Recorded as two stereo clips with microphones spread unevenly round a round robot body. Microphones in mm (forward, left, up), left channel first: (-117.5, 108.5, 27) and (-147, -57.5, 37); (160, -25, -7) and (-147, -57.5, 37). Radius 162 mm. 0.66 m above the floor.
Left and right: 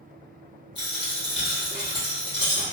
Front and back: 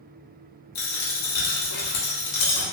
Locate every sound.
0.8 s a dropped coin: 10° left, 0.8 m